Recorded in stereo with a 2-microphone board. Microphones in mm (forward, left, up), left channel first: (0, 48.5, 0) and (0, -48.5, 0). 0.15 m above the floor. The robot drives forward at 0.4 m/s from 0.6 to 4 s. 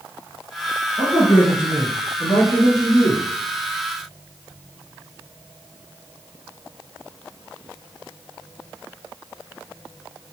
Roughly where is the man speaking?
Left.